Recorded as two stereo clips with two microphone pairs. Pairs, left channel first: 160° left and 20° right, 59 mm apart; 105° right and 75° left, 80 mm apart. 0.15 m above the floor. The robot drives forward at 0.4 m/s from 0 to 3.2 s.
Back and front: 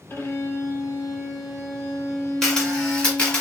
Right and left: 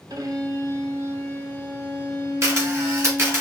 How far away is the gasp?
No gasp in this recording.